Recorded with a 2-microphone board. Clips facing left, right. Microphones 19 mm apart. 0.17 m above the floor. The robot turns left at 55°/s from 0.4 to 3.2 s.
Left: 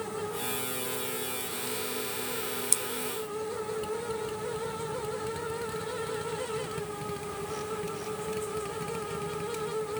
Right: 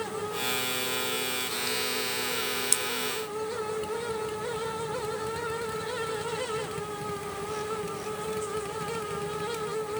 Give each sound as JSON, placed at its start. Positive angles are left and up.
{"t": 2.7, "sound": "scissors", "side_deg": -15, "distance_m": 1.0}